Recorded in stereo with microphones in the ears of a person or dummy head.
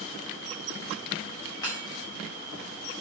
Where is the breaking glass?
10° left (ahead or behind), 4.5 m.